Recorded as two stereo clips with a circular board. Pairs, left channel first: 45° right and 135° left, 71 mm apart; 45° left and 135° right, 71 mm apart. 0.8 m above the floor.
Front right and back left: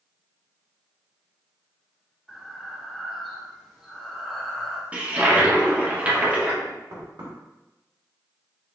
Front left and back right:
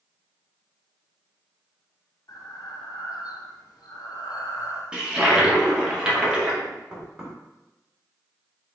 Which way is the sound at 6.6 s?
145° left.